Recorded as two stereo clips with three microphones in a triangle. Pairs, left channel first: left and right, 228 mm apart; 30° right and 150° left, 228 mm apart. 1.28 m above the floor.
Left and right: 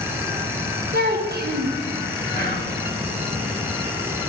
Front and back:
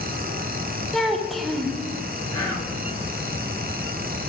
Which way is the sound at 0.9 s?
120° right.